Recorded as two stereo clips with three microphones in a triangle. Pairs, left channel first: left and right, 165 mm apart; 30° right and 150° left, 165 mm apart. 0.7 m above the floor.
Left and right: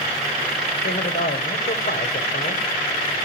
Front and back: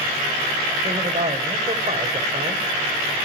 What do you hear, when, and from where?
0.8 s a man speaking: 100° left, 2.5 m